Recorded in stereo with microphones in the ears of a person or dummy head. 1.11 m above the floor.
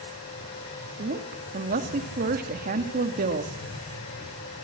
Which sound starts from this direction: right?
A woman speaking, at 1.0 s.